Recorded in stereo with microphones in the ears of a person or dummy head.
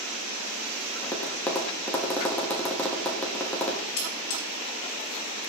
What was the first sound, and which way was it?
Tapping, 15° left (ahead or behind).